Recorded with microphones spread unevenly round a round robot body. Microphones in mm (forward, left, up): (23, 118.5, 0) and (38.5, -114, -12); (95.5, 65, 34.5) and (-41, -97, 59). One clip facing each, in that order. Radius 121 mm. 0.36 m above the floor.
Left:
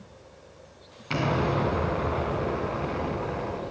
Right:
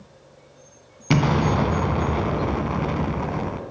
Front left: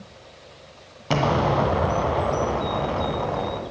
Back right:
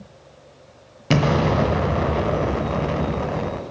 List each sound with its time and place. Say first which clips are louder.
1.1 s an explosion: right 6 dB, back right 3 dB; 70° right, 2.0 m